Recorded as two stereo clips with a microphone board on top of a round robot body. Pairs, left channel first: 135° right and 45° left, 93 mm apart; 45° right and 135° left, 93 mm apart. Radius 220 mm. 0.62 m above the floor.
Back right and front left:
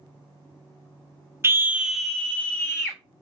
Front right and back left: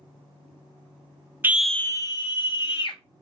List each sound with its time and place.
1.4 s a scream: 85° left, 0.6 m; by 3.0 s 65° right, 1.3 m